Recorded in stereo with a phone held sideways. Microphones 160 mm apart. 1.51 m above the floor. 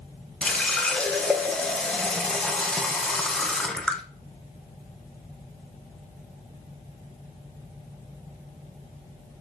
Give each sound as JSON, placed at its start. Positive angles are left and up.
{"t": 0.4, "sound": "a running tap", "side_deg": 5, "distance_m": 0.6}